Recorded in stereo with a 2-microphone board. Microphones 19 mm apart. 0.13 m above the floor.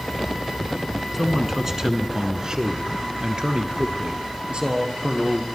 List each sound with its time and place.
1.1 s a man speaking: 10° right (ahead or behind), 1.1 m; by 5.5 s 50° right (ahead or behind), 2.5 m